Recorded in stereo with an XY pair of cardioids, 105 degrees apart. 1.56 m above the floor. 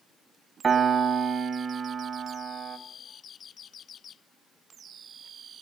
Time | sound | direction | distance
0.6 | a piano | 35° right | 1.4 m